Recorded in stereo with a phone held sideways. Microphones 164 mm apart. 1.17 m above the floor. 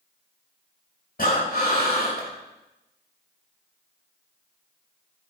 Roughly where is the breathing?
Left.